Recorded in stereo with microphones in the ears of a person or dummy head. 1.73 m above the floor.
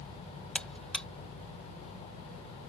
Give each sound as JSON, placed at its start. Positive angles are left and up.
{"t": 0.6, "sound": "a buzzer", "side_deg": 10}